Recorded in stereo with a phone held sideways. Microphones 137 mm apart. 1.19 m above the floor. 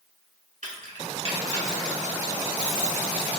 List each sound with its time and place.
0.6 s keys jangling: 60° right (ahead or behind), 1.2 m; by 3.3 s centre (ahead or behind), 1.5 m